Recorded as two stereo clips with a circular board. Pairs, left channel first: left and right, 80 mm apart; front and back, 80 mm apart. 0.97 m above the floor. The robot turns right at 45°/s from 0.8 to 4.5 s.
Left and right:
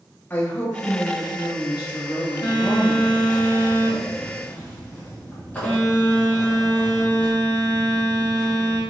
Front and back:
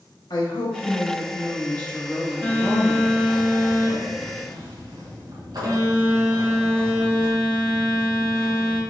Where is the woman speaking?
20° left, 1.2 m; by 3.4 s 140° left, 1.2 m.